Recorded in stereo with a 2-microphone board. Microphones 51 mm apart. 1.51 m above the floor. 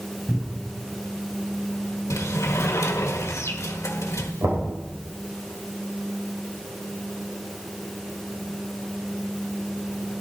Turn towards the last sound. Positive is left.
turn(degrees=-80)